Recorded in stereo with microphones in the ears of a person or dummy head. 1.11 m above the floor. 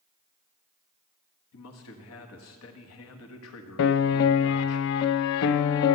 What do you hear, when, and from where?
1.5 s a man speaking: 80° left, 1.6 m
3.8 s a piano: 65° left (ahead or behind), 0.5 m